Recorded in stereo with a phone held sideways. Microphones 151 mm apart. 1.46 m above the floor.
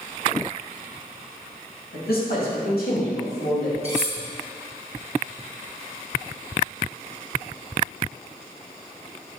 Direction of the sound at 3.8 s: 45° right (ahead or behind).